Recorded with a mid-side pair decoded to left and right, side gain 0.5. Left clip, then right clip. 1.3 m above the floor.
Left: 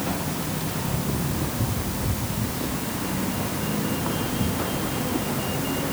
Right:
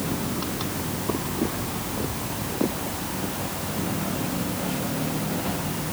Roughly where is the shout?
I don't hear a shout.